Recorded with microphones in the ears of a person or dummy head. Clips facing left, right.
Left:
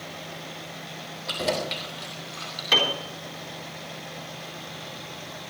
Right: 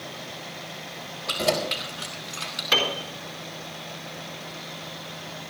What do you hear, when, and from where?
1.3 s keys jangling: 10° left (ahead or behind), 3 m; by 2.6 s 30° right (ahead or behind), 3 m
2.7 s a piano: 5° left (ahead or behind), 4 m